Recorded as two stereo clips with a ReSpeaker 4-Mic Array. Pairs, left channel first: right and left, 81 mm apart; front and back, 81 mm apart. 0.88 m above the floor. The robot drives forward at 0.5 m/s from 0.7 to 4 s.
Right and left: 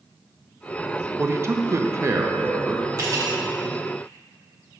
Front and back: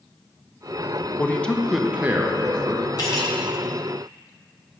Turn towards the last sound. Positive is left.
turn(degrees=55)